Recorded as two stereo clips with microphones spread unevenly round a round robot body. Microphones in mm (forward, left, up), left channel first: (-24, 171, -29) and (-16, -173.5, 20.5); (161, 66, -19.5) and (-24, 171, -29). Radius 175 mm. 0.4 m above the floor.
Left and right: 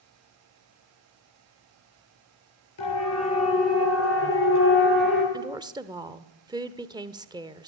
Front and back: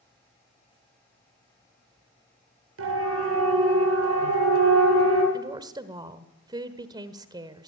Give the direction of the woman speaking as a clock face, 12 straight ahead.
6 o'clock.